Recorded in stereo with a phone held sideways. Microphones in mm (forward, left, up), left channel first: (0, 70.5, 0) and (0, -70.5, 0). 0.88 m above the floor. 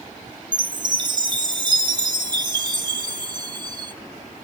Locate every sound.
0.5 s a chime: 30° right (ahead or behind), 1.0 m